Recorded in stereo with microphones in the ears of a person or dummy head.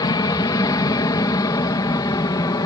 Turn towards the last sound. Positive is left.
turn(degrees=20)  # may be behind; listen again after turning